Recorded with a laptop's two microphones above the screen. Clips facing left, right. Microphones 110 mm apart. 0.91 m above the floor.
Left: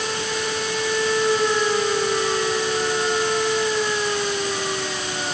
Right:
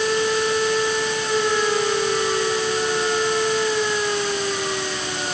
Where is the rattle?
No rattle in this recording.